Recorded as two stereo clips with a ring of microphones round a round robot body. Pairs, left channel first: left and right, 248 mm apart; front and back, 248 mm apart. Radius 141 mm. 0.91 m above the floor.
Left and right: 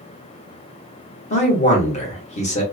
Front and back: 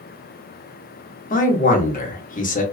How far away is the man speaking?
About 0.9 m.